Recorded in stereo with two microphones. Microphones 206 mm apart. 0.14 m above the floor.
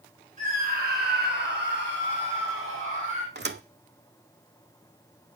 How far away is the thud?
About 0.7 m.